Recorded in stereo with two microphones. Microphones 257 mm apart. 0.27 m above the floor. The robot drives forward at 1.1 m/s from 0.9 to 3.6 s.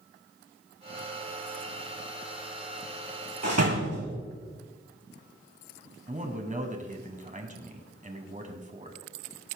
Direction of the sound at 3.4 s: 80° right.